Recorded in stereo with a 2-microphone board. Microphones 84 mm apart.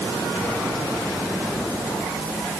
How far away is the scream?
No scream in this recording.